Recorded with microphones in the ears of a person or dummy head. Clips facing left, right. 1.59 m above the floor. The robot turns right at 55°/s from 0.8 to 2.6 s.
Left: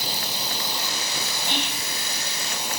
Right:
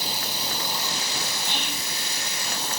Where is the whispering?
55° left (ahead or behind), 2.5 m; by 1.9 s 30° left (ahead or behind), 2.5 m.